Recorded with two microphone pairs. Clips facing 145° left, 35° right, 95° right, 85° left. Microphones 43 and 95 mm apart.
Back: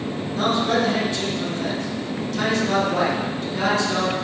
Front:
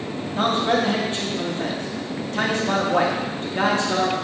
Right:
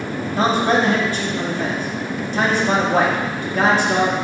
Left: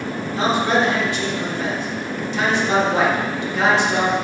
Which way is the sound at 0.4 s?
70° right.